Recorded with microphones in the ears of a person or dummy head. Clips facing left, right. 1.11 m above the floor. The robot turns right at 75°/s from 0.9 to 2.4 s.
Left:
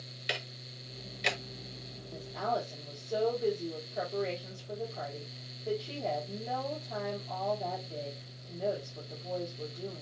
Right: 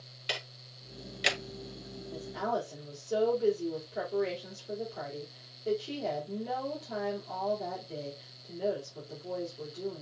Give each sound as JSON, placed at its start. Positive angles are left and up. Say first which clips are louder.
{"t": 0.3, "sound": "ticking", "louder": "left 1 dB", "side_deg": 20, "distance_m": 0.5}
{"t": 2.1, "sound": "a woman speaking", "louder": "even", "side_deg": -15, "distance_m": 3.0}